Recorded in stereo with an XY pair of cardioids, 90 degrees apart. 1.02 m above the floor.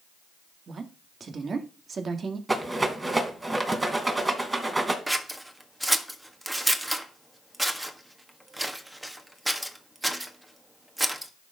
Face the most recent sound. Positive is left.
turn(degrees=-10)